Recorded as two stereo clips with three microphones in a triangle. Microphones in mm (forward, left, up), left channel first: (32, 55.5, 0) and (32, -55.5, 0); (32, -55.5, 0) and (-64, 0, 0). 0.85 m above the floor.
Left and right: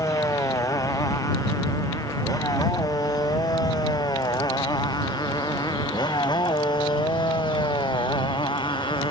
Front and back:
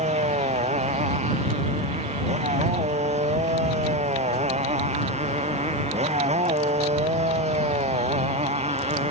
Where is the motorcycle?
150° left; by 9.1 s 135° left.